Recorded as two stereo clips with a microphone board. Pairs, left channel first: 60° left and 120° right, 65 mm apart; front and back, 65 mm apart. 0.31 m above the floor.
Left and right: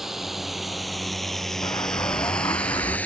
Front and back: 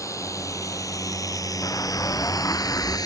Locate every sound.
0.0 s a drone: 35° right; by 3.1 s 5° right
1.6 s an explosion: 40° left